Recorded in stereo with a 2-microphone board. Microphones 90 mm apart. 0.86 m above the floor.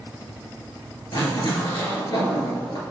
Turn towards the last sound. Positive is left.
turn(degrees=50)  # may be behind; listen again after turning